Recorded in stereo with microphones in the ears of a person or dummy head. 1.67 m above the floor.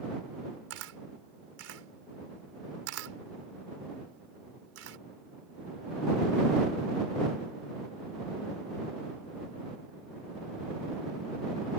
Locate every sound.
0.7 s a camera shutter: 80° right